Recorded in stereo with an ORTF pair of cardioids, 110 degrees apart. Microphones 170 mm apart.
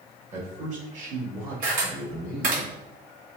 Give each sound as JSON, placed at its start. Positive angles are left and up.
{"t": 0.3, "sound": "a man speaking", "azimuth_deg": -40, "distance_m": 1.8}
{"t": 1.6, "sound": "a camera shutter", "azimuth_deg": -55, "distance_m": 1.9}